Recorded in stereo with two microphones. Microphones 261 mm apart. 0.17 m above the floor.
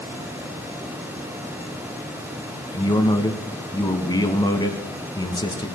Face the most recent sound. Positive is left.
turn(degrees=15)  # may be behind; listen again after turning